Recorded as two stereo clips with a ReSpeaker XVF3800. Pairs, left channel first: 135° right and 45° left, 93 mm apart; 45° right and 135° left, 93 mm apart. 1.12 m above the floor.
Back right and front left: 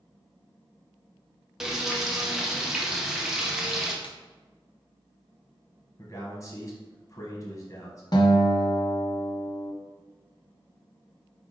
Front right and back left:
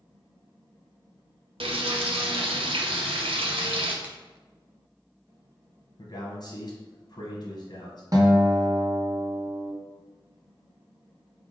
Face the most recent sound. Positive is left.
turn(degrees=-175)